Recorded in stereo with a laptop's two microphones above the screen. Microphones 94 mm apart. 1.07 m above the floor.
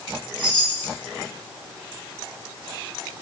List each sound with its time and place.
0.4 s a chime: 45° left (ahead or behind), 3 m